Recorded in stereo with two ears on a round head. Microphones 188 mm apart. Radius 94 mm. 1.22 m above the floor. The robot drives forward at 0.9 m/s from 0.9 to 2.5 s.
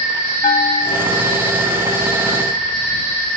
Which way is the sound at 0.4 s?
30° left (ahead or behind).